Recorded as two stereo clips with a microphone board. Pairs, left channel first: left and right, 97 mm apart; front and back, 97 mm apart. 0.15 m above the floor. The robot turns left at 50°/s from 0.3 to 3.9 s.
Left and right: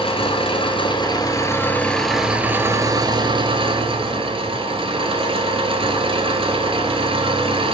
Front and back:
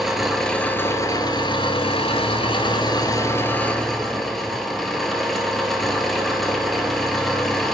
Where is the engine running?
90° left, 0.8 m; by 7.7 s 90° right, 0.8 m.